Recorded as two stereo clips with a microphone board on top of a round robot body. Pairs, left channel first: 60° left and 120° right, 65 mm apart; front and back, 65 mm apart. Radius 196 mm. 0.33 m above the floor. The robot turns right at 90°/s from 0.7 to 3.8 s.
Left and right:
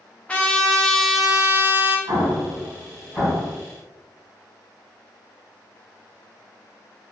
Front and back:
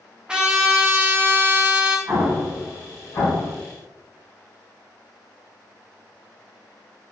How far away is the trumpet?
About 1.0 m.